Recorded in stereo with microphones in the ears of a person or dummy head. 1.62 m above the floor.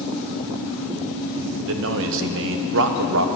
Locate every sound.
1.7 s a man speaking: 65° right (ahead or behind), 1.2 m